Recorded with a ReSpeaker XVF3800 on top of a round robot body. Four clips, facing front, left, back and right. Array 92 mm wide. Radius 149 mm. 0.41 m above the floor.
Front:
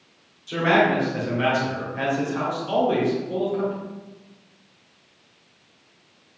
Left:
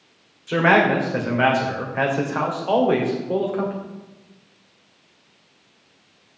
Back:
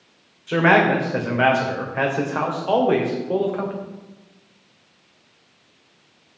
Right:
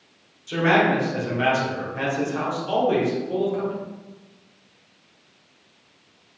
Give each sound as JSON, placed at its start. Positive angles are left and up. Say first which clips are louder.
{"t": 0.5, "sound": "a man speaking", "louder": "left 3 dB, back 3 dB", "azimuth_deg": 140, "distance_m": 2.5}